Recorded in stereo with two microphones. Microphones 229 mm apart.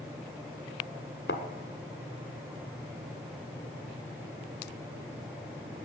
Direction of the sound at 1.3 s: 50° left (ahead or behind).